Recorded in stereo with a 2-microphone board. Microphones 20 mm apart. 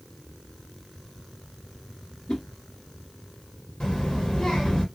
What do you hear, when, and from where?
2.3 s a whoosh: 45° left (ahead or behind), 0.7 m
3.8 s a child speaking: 35° left (ahead or behind), 1.6 m